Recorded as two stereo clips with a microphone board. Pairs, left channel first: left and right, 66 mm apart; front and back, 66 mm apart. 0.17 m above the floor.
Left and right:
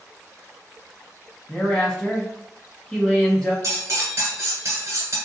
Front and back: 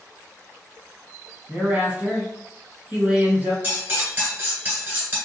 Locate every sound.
1.5 s a woman speaking: 160° left, 1.0 m
3.6 s cutlery clinking: 120° right, 1.5 m